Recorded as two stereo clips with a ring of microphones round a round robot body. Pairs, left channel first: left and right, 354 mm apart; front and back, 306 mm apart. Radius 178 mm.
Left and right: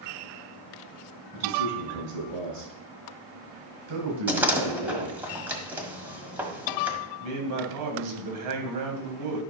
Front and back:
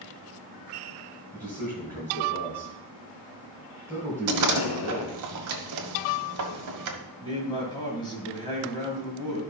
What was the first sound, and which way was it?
A man speaking, 85° right.